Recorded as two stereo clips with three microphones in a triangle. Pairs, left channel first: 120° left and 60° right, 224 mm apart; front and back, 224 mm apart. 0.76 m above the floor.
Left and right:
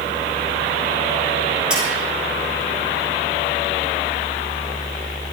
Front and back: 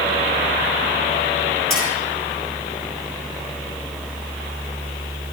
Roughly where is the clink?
Ahead left.